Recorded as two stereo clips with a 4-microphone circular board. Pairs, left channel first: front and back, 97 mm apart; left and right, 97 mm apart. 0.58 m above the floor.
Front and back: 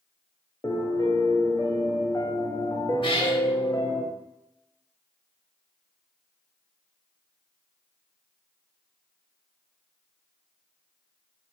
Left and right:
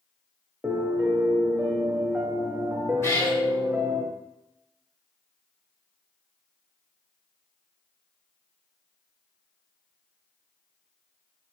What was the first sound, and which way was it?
A piano, 25° right.